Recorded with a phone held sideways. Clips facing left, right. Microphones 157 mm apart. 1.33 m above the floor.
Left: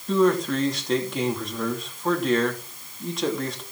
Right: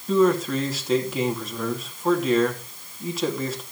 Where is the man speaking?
5° right (ahead or behind), 2.5 m.